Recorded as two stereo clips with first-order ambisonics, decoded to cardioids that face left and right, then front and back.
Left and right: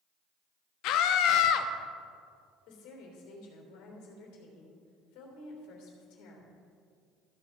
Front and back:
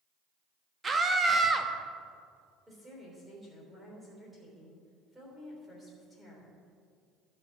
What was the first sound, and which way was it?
A scream, 110° left.